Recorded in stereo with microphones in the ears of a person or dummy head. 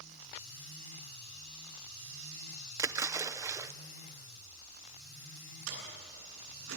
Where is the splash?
10° right (ahead or behind), 0.7 m.